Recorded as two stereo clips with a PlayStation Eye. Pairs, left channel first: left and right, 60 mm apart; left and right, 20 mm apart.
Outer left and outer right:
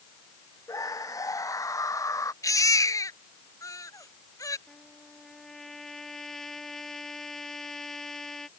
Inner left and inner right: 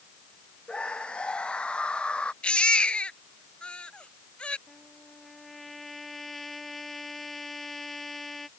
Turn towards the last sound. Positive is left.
turn(degrees=5)  # may be behind; listen again after turning